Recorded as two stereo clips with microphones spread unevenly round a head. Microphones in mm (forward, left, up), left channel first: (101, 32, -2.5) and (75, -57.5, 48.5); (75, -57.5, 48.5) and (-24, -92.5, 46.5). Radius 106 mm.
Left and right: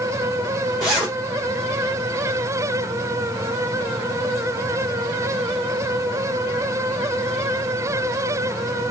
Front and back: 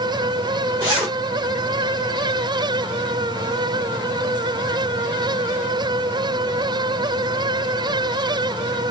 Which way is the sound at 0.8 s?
145° right.